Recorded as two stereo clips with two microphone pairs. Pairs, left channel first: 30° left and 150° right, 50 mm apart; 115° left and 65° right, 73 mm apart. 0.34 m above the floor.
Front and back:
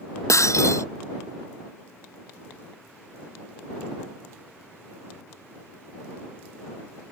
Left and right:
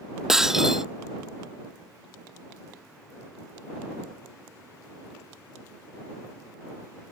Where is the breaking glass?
15° left.